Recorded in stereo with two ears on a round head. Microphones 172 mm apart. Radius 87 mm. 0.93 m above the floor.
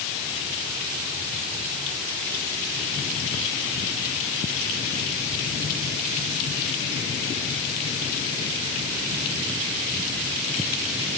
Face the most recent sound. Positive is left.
No sound to turn to.